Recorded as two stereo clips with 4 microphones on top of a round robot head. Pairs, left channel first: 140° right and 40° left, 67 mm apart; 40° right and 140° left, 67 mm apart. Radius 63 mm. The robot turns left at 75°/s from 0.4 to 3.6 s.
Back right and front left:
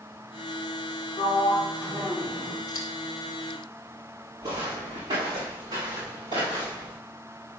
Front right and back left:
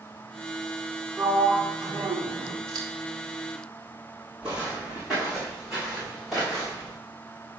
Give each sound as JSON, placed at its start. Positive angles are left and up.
{"t": 1.2, "sound": "a sliding door", "azimuth_deg": -140, "distance_m": 2.5}
{"t": 2.7, "sound": "scissors", "azimuth_deg": 180, "distance_m": 2.0}
{"t": 4.4, "sound": "footsteps", "azimuth_deg": 60, "distance_m": 5.0}